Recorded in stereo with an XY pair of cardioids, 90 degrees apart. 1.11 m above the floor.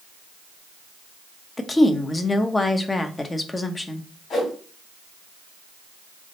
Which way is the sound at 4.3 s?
70° left.